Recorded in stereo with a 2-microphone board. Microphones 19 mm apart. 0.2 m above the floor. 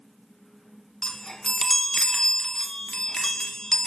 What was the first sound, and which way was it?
A chime, 25° left (ahead or behind).